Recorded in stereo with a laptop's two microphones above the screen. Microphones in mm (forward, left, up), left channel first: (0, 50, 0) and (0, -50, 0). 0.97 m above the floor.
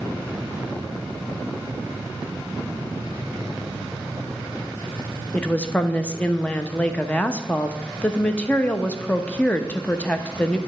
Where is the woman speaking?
15° left (ahead or behind), 0.7 m.